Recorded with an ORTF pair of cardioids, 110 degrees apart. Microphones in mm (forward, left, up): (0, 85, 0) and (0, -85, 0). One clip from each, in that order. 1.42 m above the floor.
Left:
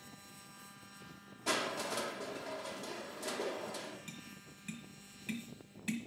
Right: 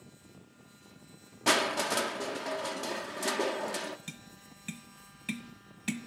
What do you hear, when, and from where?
1.5 s crushing: 55° right, 0.6 m
4.1 s tapping: 40° right, 1.1 m